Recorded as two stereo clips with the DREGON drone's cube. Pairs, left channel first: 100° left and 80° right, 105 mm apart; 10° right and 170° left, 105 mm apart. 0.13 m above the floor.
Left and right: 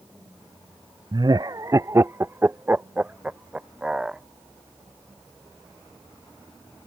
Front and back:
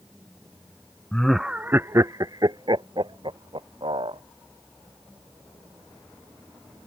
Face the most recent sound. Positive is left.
turn(degrees=-160)